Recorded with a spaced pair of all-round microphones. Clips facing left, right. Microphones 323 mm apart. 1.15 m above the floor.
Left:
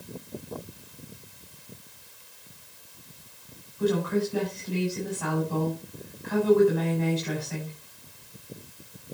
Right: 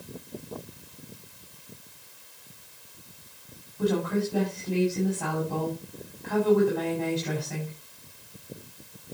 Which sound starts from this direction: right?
A woman speaking, at 3.8 s.